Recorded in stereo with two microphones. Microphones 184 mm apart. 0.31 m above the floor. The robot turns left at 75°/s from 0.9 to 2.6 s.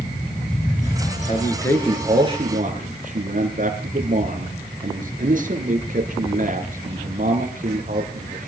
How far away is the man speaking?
About 4.5 m.